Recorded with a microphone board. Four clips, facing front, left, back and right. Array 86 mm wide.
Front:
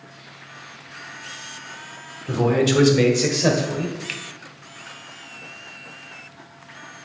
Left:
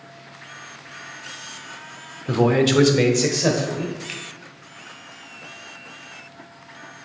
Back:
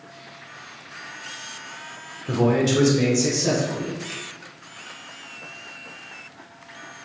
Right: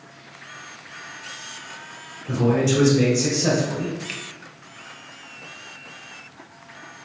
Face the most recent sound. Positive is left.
turn(degrees=-5)